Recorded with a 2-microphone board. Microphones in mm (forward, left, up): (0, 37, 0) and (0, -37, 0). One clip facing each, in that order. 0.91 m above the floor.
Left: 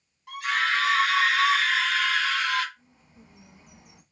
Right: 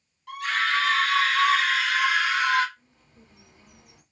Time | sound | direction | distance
0.3 | a scream | 20° left (ahead or behind) | 1.5 m
2.8 | a bird | 15° left (ahead or behind) | 1.1 m